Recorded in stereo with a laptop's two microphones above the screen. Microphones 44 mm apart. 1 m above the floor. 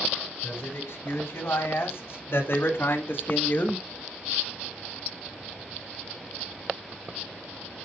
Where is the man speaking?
60° left (ahead or behind), 5 m; by 3.9 s 50° left (ahead or behind), 1.2 m.